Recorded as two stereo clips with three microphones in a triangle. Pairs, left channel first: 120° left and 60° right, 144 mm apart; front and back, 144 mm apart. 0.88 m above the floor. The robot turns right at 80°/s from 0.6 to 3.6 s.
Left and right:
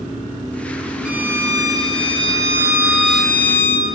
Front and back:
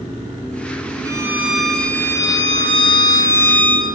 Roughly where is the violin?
Behind right.